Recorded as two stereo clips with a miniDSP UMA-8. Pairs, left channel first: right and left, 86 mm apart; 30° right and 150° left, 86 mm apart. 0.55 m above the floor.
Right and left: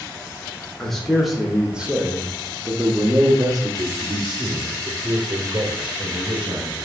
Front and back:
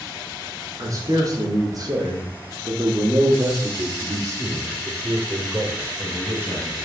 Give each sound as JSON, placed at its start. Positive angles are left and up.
{"t": 0.8, "sound": "a man speaking", "azimuth_deg": -175, "distance_m": 1.7}